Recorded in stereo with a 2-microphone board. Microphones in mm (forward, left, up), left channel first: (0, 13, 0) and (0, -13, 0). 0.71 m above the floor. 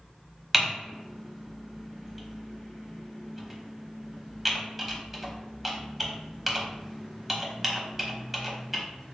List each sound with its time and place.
0.5 s typing on a keyboard: 15° right (ahead or behind), 0.7 m